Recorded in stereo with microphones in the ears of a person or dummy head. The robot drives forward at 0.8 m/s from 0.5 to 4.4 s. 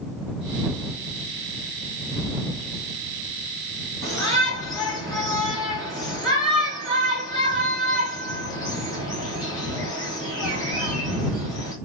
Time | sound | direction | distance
4.0 | a shout | 20° left (ahead or behind) | 3.5 m